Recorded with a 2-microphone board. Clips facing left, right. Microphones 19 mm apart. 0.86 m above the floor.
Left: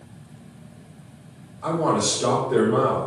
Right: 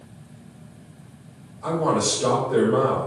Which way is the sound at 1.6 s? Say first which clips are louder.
Even; 70° left (ahead or behind).